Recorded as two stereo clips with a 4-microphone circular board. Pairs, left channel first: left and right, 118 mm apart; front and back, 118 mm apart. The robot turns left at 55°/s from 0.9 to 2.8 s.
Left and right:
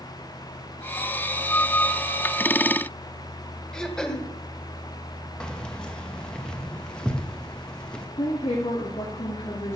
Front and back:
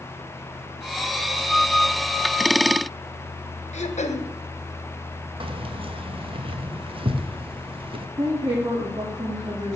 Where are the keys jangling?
170° left, 1.2 m.